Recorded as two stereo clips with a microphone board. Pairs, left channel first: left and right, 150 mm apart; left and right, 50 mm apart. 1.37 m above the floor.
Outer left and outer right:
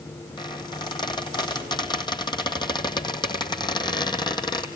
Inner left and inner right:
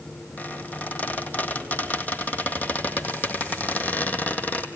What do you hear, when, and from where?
0.4 s a squeak: 30° left (ahead or behind), 2 m